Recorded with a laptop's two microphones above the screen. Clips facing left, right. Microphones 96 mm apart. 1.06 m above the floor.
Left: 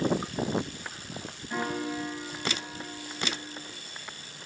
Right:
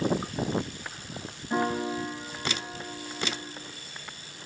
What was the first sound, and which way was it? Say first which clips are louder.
A piano: right 4 dB; 25° right (ahead or behind).